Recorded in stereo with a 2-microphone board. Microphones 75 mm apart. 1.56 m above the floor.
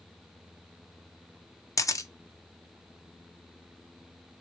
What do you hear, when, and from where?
1.8 s a camera shutter: 45° left (ahead or behind), 0.6 m